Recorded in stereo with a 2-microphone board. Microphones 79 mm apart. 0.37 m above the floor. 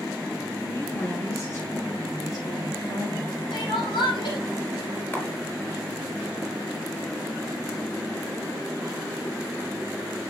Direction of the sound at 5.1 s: 25° left (ahead or behind).